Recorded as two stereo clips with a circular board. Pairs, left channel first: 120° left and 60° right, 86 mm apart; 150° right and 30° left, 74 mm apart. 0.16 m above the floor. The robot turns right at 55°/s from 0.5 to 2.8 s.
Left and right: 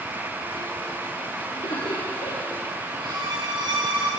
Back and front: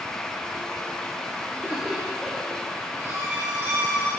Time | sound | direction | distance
1.5 | laughter | 85° left | 5.5 m
3.0 | a violin | 30° right | 5.5 m